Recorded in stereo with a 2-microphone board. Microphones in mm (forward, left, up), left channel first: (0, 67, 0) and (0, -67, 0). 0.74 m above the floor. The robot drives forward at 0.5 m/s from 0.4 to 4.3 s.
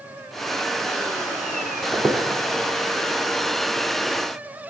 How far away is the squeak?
About 0.7 m.